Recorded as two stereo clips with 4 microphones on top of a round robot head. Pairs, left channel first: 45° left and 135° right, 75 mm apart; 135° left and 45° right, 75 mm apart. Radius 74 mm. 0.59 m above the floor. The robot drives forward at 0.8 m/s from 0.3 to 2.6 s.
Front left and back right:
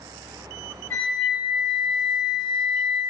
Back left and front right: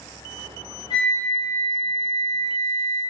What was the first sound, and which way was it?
A flute, 105° left.